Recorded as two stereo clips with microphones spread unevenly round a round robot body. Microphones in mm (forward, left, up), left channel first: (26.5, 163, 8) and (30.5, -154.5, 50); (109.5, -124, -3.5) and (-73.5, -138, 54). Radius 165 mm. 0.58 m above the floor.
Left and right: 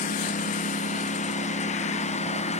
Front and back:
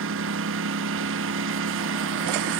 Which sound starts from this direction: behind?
A lawn mower, at 0.0 s.